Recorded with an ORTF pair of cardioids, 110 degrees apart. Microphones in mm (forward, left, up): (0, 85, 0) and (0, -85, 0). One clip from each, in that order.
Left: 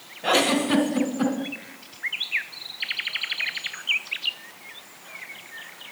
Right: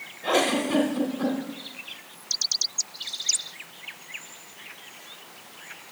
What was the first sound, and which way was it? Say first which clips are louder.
A giggle: left 2 dB; 25° left.